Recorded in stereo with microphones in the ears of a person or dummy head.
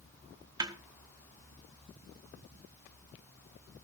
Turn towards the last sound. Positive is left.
turn(degrees=-20)  # may be behind; listen again after turning